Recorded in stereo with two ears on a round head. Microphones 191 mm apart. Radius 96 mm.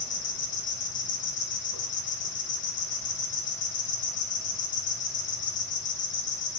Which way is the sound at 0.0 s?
55° left (ahead or behind).